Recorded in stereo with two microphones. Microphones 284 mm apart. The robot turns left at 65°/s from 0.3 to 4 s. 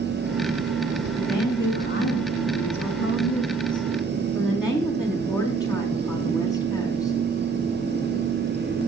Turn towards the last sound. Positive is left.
turn(degrees=-5)